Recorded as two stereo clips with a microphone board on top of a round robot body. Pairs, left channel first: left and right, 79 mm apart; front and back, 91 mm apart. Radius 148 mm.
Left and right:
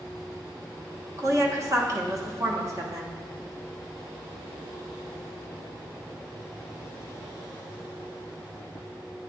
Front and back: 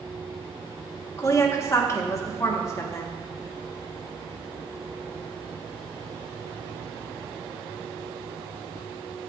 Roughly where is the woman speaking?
Ahead right.